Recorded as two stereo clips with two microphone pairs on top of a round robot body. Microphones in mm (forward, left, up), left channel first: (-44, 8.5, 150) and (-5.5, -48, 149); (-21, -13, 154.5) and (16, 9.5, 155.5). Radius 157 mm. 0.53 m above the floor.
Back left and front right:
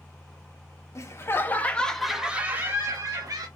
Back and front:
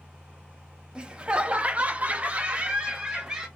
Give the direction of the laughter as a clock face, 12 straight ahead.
9 o'clock.